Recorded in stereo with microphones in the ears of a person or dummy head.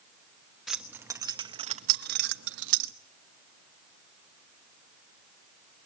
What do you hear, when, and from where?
0.7 s keys jangling: 5° right (ahead or behind), 1.2 m; by 2.9 s 75° right (ahead or behind), 1.1 m